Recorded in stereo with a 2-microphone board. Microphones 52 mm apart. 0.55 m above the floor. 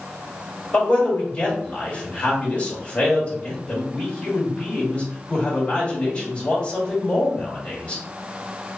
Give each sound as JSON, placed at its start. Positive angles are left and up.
{"t": 0.7, "sound": "a man speaking", "side_deg": 25, "distance_m": 1.9}